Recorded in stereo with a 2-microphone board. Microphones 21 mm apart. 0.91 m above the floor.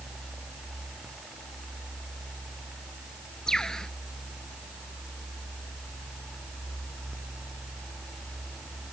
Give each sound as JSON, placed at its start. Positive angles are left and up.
{"t": 3.5, "sound": "a bird", "side_deg": 30}